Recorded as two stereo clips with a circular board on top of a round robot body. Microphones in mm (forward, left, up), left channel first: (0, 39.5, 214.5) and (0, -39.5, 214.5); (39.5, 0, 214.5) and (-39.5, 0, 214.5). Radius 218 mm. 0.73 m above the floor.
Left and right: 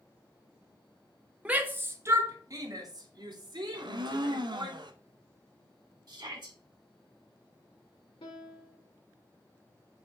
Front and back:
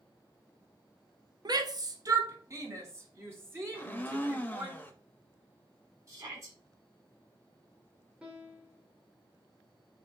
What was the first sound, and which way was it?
A shout, 160° right.